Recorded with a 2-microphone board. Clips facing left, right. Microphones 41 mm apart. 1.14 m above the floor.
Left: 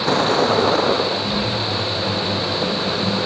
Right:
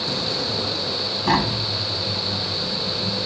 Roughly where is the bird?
No bird in this recording.